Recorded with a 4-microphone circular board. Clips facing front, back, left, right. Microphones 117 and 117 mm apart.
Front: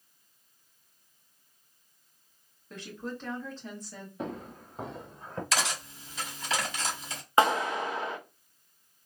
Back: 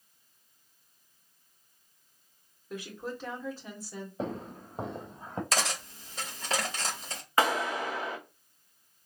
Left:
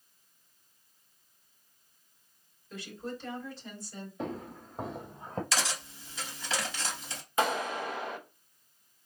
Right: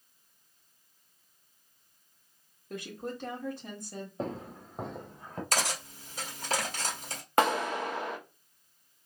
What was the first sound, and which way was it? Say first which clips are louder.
A woman speaking: back 1 dB, right 2 dB; 100° right.